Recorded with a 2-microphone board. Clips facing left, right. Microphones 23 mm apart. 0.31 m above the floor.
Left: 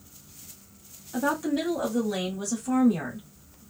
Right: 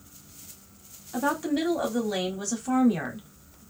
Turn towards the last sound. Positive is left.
turn(degrees=-35)  # may be behind; listen again after turning